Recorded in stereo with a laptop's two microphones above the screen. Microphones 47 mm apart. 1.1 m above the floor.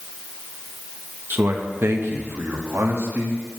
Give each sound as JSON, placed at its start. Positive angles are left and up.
{"t": 1.3, "sound": "a man speaking", "side_deg": -50, "distance_m": 1.2}